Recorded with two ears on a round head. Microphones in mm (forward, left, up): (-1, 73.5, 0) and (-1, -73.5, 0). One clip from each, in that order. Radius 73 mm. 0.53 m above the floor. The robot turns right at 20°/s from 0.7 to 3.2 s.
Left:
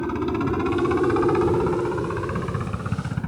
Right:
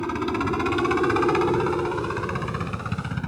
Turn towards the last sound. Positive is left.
turn(degrees=-70)  # may be behind; listen again after turning